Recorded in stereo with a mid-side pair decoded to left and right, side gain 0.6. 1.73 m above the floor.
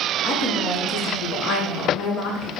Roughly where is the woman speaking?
Ahead left.